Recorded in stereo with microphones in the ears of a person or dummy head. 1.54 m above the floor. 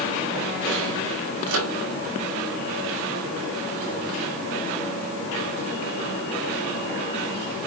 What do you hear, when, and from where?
1.5 s a microwave: 85° right, 4 m